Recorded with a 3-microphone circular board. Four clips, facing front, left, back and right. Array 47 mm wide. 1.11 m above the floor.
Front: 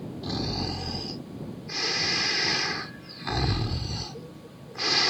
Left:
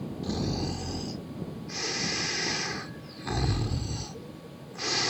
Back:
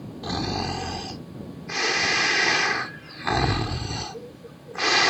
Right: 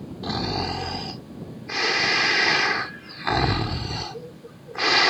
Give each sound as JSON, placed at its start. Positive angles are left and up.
{"t": 0.2, "sound": "snoring", "azimuth_deg": -125}